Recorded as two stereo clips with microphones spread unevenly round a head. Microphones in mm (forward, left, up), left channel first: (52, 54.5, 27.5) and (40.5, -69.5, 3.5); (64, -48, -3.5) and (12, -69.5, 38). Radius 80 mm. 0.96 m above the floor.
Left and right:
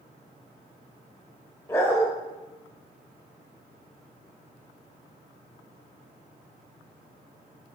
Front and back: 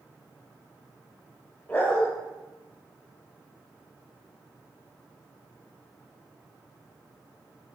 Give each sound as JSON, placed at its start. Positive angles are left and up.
{"t": 1.7, "sound": "a dog barking", "azimuth_deg": 140, "distance_m": 0.8}